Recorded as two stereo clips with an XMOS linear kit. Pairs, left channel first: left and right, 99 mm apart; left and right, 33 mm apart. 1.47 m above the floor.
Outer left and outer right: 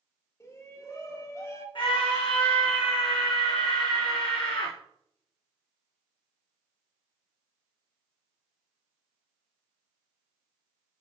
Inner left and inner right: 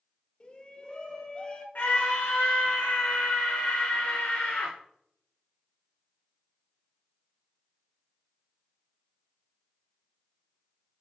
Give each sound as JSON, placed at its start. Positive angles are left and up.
{"t": 0.4, "sound": "a shout", "side_deg": 30, "distance_m": 2.0}
{"t": 1.8, "sound": "a scream", "side_deg": 60, "distance_m": 1.3}